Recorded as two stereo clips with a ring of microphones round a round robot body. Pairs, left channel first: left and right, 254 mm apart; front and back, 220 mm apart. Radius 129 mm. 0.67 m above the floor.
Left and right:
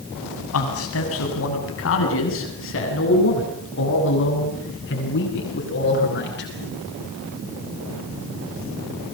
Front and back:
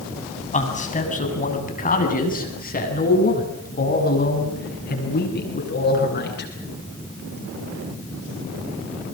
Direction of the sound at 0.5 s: 55° left.